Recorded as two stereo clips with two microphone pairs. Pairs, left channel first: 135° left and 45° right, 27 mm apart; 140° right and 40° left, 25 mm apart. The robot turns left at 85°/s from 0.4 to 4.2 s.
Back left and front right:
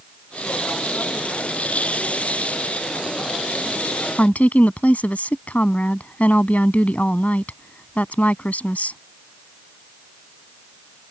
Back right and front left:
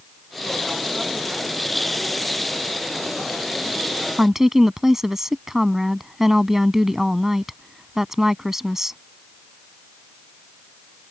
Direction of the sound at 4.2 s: 120° left.